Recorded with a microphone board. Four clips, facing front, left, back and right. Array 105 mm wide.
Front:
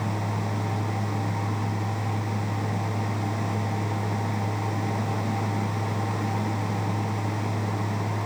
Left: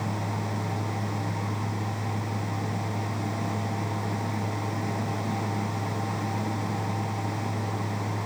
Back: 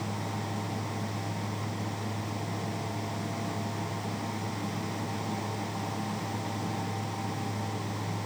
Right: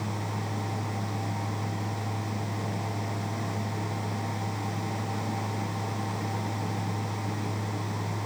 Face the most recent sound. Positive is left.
No sound to turn to.